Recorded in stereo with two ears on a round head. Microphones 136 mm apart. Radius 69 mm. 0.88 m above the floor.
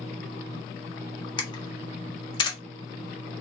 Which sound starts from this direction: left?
A camera shutter, at 1.4 s.